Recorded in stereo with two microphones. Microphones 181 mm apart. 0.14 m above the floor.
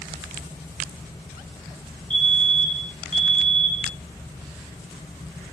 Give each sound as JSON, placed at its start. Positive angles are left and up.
{"t": 2.1, "sound": "a fire alarm", "side_deg": -25, "distance_m": 2.5}